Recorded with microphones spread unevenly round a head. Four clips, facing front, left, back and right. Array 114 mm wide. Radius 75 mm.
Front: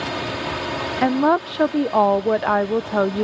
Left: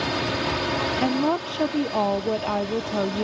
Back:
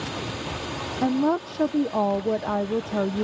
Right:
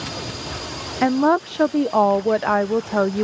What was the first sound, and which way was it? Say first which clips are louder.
A drone: left 6 dB, front 6 dB; 45° left.